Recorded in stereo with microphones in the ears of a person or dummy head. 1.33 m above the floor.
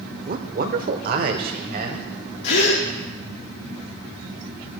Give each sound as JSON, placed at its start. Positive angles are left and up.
{"t": 0.3, "sound": "a man speaking", "side_deg": -45, "distance_m": 0.7}
{"t": 2.4, "sound": "a gasp", "side_deg": 60, "distance_m": 1.6}